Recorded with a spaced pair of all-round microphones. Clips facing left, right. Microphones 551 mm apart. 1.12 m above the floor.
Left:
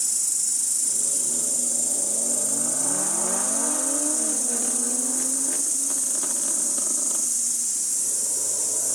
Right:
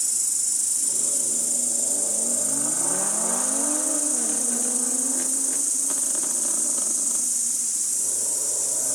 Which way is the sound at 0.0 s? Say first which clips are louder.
Even; 5° left (ahead or behind).